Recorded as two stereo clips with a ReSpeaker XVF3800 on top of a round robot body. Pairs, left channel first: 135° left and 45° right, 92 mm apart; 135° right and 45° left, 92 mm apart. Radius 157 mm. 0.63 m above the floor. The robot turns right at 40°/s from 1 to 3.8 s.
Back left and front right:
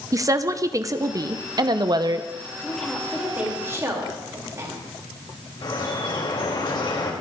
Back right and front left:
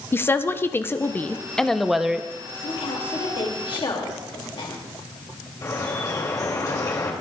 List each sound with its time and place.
0.1 s a woman speaking: 80° right, 0.8 m; by 2.3 s 30° right, 0.8 m
2.6 s a woman speaking: 150° right, 2.5 m; by 4.8 s 100° right, 2.5 m
5.6 s dripping: 175° left, 3 m